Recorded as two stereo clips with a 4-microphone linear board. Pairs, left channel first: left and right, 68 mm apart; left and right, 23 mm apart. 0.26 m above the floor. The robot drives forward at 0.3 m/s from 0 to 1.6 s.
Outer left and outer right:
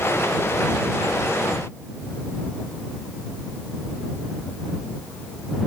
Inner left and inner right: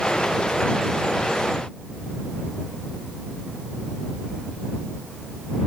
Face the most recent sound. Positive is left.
No sound to turn to.